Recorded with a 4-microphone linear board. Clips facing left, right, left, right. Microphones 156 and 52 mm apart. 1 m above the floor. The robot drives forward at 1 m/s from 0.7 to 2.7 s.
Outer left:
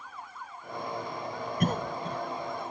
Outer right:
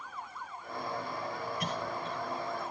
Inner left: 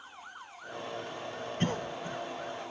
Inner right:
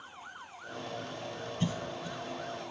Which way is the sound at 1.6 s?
50° left (ahead or behind).